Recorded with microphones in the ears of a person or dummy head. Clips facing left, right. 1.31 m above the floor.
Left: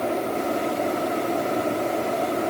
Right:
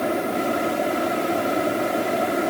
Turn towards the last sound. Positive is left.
No sound to turn to.